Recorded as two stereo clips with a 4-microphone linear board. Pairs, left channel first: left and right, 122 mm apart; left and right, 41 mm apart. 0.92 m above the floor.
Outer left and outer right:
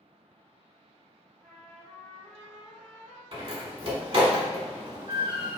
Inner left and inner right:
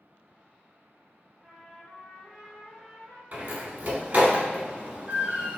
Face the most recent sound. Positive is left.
turn(degrees=-45)  # may be behind; listen again after turning